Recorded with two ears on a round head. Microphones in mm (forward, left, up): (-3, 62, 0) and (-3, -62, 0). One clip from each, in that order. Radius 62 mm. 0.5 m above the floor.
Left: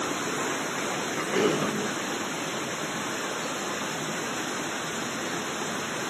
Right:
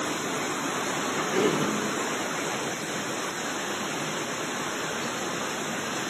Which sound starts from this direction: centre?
A cough, at 1.1 s.